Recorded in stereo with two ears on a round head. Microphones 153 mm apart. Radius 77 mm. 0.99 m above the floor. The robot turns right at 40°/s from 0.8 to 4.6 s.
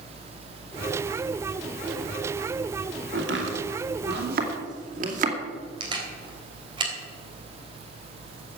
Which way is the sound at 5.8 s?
30° right (ahead or behind).